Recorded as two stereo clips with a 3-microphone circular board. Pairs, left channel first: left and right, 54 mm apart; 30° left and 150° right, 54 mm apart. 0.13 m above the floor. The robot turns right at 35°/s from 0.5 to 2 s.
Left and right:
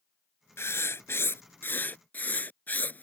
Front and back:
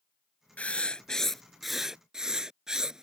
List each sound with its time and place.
0.6 s writing: 85° left; by 3.0 s 135° left